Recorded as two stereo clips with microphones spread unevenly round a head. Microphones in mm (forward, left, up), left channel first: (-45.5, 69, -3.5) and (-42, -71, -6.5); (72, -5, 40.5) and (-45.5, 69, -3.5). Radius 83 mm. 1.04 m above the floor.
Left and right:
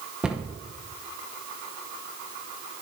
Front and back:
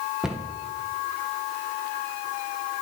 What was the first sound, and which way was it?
A cupboard door, 165° right.